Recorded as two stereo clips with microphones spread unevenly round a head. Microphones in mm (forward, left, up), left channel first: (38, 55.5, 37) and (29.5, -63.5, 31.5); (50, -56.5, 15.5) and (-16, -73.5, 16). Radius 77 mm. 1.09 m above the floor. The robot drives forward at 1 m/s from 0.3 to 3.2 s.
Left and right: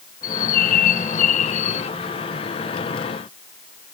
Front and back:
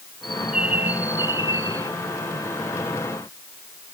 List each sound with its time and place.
0.2 s a bird: 105° left; by 1.9 s 125° left